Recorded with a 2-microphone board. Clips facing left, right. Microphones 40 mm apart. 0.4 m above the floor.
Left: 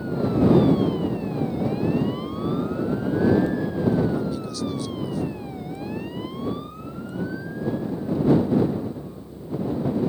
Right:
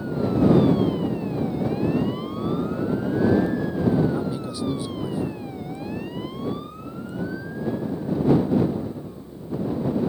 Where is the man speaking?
20° right (ahead or behind).